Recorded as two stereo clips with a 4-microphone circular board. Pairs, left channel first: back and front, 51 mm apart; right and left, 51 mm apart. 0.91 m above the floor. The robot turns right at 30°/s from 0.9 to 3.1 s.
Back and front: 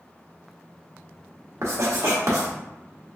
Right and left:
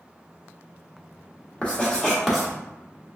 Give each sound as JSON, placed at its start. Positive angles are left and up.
{"t": 1.6, "sound": "writing", "azimuth_deg": -25, "distance_m": 1.1}